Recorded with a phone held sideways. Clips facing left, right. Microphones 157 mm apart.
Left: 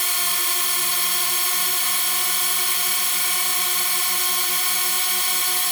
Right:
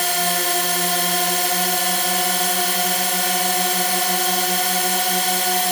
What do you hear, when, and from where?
0.0 s a drone: 70° right (ahead or behind)